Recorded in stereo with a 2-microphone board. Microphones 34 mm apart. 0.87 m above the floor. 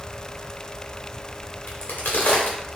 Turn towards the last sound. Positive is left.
turn(degrees=85)